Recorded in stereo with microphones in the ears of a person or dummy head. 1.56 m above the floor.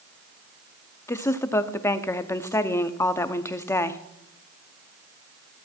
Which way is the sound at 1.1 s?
20° left (ahead or behind).